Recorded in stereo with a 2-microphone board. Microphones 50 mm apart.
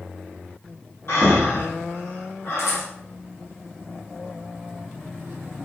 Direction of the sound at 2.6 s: 80° left.